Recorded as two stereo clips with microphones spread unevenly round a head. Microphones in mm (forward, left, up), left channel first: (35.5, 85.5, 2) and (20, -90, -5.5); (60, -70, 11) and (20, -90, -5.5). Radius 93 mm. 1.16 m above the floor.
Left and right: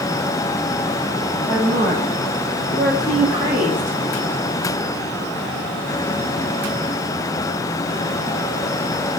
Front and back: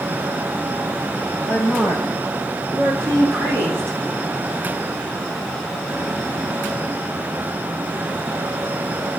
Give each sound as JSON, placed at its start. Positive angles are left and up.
{"t": 1.5, "sound": "a woman speaking", "azimuth_deg": 155, "distance_m": 4.0}